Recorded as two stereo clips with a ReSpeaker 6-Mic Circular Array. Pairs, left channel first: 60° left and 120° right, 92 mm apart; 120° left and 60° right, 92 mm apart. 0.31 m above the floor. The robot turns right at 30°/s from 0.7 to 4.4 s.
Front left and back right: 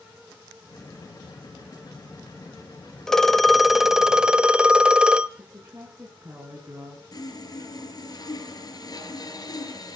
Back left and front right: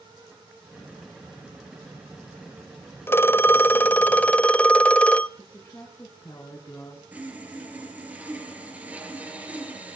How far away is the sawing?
About 4 m.